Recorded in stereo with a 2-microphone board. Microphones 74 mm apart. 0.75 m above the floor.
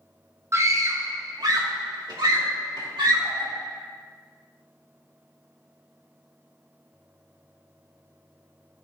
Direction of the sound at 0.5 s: 40° right (ahead or behind).